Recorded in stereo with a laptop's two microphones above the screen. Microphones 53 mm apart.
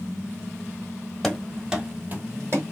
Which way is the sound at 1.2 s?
10° left (ahead or behind).